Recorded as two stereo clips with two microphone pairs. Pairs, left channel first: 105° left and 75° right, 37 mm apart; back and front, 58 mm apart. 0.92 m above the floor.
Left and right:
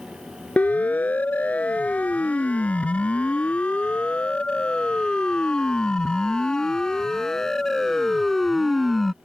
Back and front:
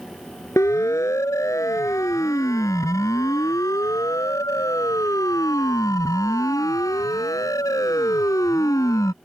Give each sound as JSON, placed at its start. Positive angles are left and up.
{"t": 0.6, "sound": "a siren", "azimuth_deg": 150}